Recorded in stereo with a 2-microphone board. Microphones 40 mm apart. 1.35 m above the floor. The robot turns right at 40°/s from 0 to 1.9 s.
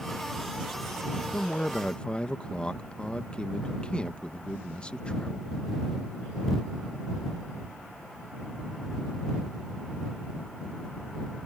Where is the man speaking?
50° left (ahead or behind); by 5.5 s 25° left (ahead or behind).